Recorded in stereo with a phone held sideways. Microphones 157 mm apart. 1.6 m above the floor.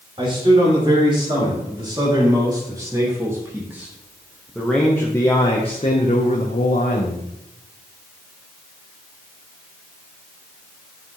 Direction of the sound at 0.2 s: 35° right (ahead or behind).